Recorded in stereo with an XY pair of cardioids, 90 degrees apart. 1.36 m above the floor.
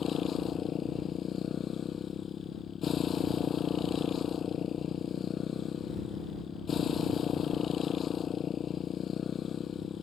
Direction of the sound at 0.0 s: 55° left.